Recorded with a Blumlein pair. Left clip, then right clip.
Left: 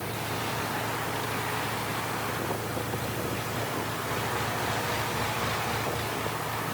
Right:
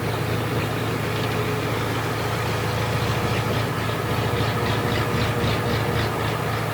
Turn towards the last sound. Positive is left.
turn(degrees=-60)